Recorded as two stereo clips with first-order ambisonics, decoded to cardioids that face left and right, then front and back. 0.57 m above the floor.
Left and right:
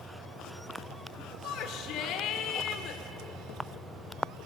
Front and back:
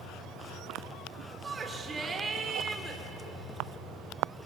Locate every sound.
1.4 s a shout: 110° left, 2.0 m